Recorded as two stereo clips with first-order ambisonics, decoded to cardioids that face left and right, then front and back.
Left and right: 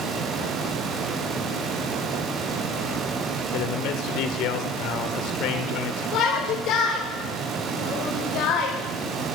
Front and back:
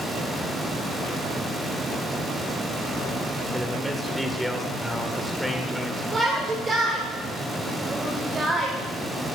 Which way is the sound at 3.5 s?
90° left.